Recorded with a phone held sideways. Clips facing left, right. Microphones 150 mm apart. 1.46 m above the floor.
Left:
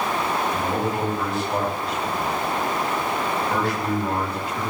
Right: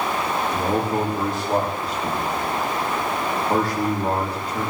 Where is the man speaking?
40° right (ahead or behind), 4 m.